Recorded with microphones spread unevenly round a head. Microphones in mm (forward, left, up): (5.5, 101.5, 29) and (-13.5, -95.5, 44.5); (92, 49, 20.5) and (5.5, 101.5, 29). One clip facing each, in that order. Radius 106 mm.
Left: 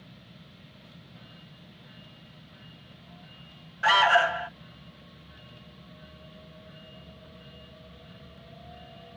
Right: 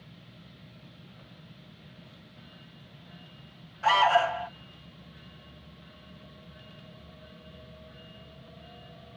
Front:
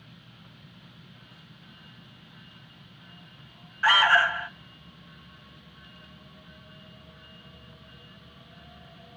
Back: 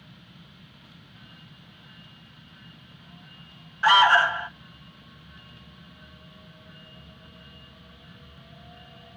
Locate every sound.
3.8 s an alarm: 110° left, 0.8 m